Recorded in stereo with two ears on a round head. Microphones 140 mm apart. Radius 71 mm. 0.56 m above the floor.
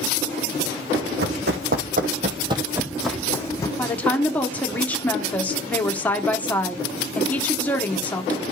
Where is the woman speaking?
10° left (ahead or behind), 1.5 m.